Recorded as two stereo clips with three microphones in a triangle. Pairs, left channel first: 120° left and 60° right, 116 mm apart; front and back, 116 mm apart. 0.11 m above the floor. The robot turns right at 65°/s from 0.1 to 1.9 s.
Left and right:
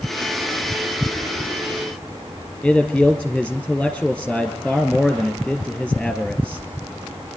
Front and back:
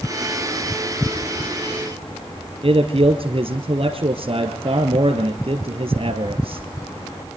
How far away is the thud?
I don't hear a thud.